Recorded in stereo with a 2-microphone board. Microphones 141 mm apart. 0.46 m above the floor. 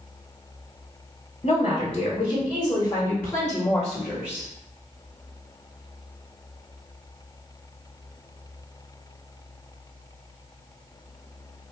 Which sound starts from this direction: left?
A woman speaking, at 1.4 s.